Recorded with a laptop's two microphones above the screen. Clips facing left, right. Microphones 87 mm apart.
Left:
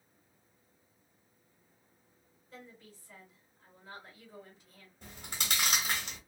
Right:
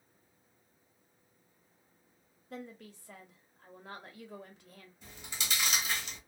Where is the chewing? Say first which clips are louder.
Left 2 dB; 55° left (ahead or behind), 1.0 m.